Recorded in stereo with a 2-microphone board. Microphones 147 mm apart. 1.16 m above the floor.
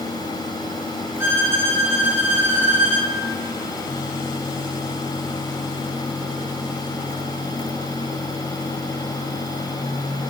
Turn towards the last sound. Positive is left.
turn(degrees=-15)  # may be behind; listen again after turning